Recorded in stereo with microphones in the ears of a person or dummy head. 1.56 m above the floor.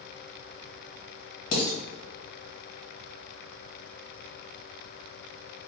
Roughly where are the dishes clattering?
Left.